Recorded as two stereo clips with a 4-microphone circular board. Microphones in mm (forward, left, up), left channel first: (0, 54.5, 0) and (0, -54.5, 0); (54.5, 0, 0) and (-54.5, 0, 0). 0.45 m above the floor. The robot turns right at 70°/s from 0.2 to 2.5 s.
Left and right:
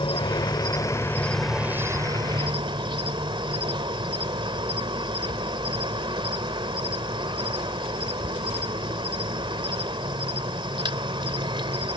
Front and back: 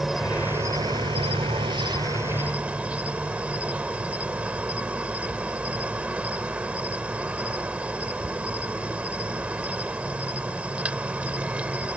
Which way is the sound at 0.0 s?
95° left.